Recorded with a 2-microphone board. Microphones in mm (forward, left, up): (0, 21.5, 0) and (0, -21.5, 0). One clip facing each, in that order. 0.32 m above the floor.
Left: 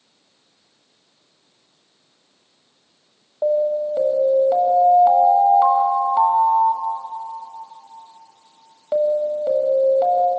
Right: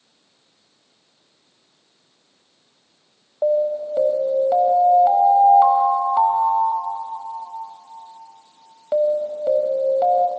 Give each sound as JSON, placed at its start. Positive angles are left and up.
{"t": 3.4, "sound": "an alarm", "side_deg": -5, "distance_m": 1.8}